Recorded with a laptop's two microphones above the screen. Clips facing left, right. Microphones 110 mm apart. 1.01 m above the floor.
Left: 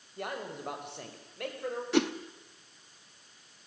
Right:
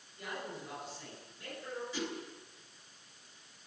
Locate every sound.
0.2 s a man speaking: 60° left (ahead or behind), 6 m; by 1.8 s 75° left (ahead or behind), 5.5 m
1.9 s a whoosh: 70° left (ahead or behind), 1.1 m